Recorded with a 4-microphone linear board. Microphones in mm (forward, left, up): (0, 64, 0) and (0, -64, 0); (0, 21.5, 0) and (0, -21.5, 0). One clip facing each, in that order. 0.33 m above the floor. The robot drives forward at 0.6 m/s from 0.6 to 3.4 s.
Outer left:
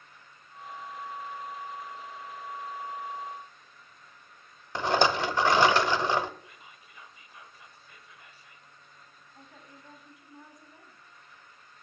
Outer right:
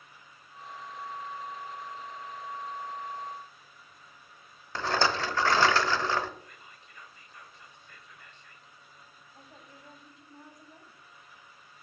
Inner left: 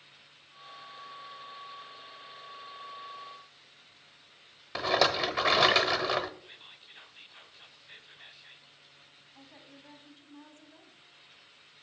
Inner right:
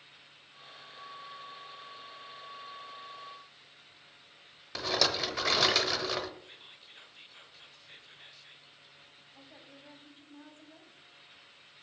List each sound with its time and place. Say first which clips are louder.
4.8 s a rattle: outer left 3 dB, inner left 5 dB; 15° left (ahead or behind), 0.6 m
6.4 s whispering: even, inner left 1 dB; 5° left (ahead or behind), 0.9 m
9.3 s a woman speaking: outer left 1 dB, inner left 1 dB; 30° right (ahead or behind), 2.5 m